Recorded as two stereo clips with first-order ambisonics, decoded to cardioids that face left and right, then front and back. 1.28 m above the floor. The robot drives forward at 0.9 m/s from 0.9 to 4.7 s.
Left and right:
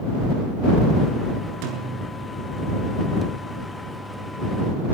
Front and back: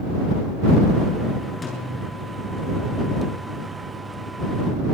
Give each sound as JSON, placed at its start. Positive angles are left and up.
{"t": 1.6, "sound": "a snare drum", "azimuth_deg": -75, "distance_m": 8.0}